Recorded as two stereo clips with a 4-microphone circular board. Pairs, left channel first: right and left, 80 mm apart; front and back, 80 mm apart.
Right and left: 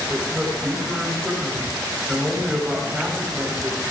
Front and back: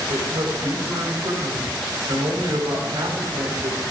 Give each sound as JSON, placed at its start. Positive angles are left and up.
{"t": 0.1, "sound": "a man speaking", "azimuth_deg": 175, "distance_m": 4.0}